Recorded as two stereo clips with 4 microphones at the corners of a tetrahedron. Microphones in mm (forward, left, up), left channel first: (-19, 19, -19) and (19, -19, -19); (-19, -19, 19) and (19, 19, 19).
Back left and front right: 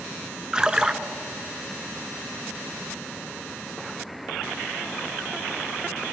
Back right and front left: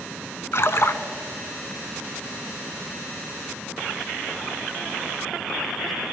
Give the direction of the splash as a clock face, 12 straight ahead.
4 o'clock.